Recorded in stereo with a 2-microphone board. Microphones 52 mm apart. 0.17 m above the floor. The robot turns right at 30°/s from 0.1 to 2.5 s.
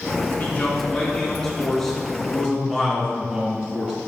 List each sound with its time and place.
0.4 s a man speaking: 130° left, 2 m; by 3.9 s 165° right, 2 m